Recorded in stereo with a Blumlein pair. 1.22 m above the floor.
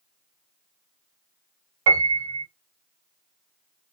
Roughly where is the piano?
Ahead right.